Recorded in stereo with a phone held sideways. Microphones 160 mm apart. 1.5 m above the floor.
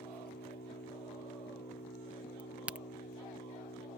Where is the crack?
10° right (ahead or behind).